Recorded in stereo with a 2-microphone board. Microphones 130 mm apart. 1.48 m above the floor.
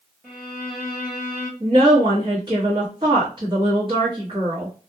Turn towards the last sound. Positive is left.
turn(degrees=-35)  # may be behind; listen again after turning